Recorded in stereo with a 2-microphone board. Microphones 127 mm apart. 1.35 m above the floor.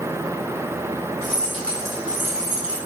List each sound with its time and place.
1.2 s keys jangling: 20° left (ahead or behind), 1.6 m; by 2.8 s 50° right (ahead or behind), 0.8 m